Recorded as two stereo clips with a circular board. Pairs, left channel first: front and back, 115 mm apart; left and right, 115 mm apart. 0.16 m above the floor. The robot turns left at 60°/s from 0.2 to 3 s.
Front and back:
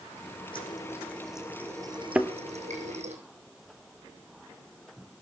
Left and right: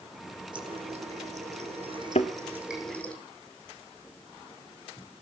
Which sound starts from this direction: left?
A thud, at 2.1 s.